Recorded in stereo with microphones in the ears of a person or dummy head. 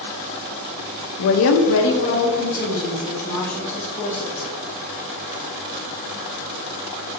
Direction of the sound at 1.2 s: 55° left (ahead or behind).